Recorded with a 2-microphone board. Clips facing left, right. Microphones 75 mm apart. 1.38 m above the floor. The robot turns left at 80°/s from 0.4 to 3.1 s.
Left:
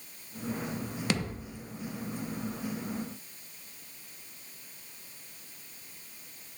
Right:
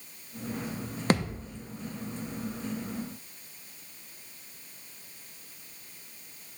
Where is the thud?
40° right (ahead or behind), 0.9 m; by 1.5 s 25° right (ahead or behind), 0.9 m.